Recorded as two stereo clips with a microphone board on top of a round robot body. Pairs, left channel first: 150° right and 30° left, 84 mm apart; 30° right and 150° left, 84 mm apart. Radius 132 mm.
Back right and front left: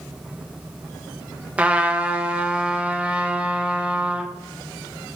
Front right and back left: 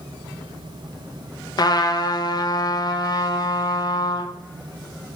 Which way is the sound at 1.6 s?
40° right.